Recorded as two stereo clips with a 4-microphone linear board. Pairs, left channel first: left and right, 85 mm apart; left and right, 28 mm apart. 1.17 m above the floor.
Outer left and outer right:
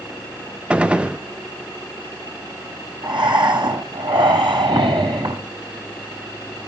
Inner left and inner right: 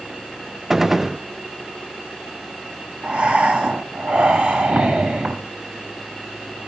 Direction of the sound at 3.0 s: 70° right (ahead or behind).